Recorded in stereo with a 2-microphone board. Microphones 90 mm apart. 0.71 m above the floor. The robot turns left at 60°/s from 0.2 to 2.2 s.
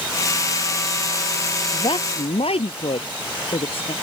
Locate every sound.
1.7 s a woman speaking: 55° left (ahead or behind); by 3.9 s 85° left